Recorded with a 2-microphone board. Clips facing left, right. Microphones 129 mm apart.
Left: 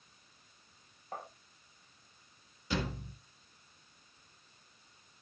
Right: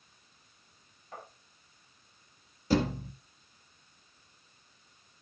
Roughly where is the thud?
Right.